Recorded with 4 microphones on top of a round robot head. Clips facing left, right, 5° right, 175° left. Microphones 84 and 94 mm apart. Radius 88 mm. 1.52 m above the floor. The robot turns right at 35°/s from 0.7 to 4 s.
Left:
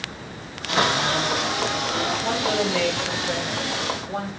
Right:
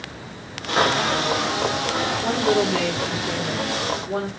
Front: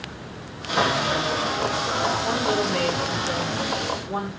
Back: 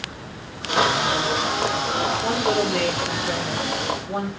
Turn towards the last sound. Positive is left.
turn(degrees=-80)